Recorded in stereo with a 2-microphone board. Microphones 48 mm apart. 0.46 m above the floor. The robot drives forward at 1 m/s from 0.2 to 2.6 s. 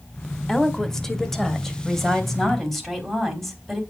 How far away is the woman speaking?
About 1.6 m.